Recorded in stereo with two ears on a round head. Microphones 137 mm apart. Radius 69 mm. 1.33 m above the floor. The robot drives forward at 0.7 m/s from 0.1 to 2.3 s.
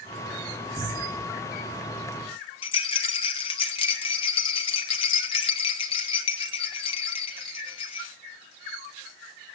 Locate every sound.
0.8 s a cupboard door: 15° left (ahead or behind), 3.5 m
2.6 s a rattle: 35° left (ahead or behind), 2 m